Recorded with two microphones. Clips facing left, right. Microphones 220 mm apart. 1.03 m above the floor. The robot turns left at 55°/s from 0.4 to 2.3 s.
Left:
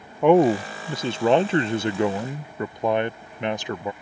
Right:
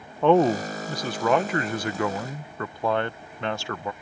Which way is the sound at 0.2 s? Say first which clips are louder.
Left 2 dB; 15° left (ahead or behind).